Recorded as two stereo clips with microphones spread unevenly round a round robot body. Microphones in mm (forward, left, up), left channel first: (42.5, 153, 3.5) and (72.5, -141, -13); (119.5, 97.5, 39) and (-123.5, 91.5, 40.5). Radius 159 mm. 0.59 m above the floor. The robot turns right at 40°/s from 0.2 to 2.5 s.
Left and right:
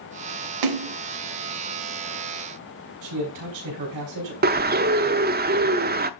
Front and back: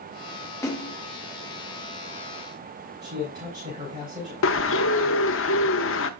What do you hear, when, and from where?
0.6 s a splash: 80° right, 0.8 m; by 0.9 s 65° right, 0.8 m
3.0 s a man speaking: 100° right, 4 m
4.4 s a bird: 30° right, 0.7 m